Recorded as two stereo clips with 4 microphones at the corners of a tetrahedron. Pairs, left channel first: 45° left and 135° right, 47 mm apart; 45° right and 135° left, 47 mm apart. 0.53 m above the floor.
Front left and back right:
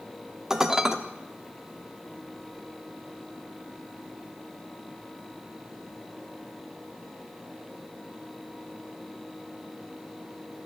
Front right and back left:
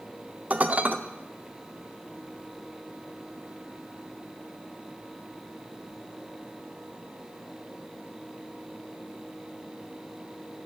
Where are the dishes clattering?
155° left, 0.6 m.